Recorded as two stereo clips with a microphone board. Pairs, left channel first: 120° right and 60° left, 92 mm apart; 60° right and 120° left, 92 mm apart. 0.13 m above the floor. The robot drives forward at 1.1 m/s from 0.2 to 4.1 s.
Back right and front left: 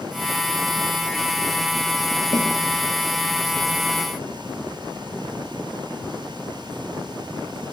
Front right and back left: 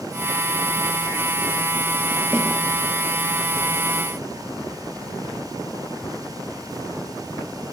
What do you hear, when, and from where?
2.3 s a snare drum: 150° right, 2 m; by 2.5 s 155° right, 2 m